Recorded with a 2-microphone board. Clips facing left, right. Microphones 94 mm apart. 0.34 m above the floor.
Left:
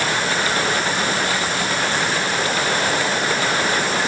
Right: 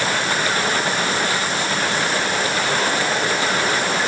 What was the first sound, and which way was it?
Only background noise.